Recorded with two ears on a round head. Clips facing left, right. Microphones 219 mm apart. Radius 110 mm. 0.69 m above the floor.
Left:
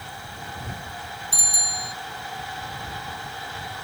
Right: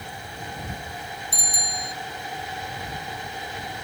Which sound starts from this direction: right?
A bicycle bell, at 1.3 s.